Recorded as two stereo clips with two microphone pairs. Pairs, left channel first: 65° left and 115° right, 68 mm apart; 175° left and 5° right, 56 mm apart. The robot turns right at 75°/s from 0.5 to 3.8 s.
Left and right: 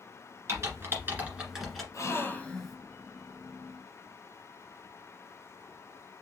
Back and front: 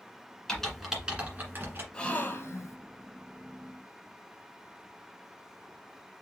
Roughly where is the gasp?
Left.